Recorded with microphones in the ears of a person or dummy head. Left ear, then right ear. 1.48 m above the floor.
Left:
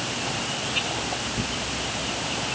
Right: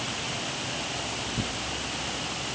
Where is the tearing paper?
30° right (ahead or behind), 0.7 m.